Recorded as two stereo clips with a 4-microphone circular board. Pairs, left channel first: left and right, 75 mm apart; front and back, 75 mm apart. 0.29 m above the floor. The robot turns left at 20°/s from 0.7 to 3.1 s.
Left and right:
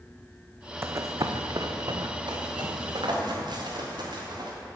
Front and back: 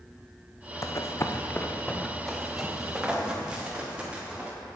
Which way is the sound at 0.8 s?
35° right.